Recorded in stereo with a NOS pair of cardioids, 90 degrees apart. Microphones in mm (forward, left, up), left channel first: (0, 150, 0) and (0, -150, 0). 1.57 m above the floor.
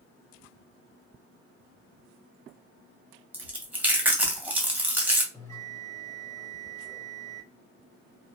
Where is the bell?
10° left, 1.3 m.